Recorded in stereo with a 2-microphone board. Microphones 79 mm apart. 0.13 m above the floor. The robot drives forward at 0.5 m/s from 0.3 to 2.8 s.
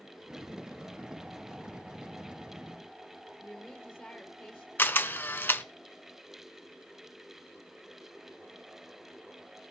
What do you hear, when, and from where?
3.4 s a woman speaking: 5° left (ahead or behind), 3.5 m
4.8 s a camera shutter: 30° left (ahead or behind), 0.6 m